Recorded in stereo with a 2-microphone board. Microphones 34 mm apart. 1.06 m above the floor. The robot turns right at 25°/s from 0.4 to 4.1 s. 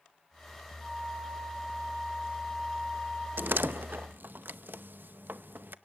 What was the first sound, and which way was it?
A flute, 175° right.